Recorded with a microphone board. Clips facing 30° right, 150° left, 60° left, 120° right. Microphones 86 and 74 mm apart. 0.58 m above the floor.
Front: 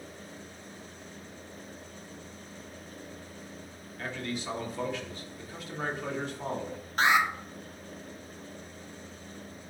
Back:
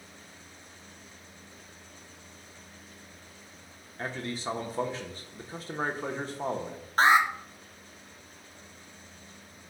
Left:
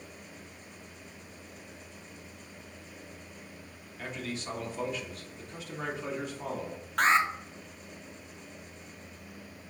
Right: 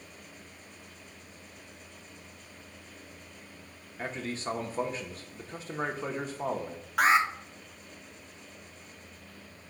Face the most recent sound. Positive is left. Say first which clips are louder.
# back 3 dB, right 1 dB
turn(degrees=160)